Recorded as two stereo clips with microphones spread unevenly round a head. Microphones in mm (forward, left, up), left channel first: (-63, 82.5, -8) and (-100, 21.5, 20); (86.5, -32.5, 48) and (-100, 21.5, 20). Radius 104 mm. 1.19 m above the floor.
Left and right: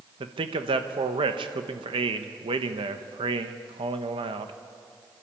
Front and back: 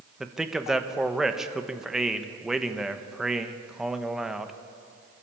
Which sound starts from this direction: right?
A man speaking, at 0.2 s.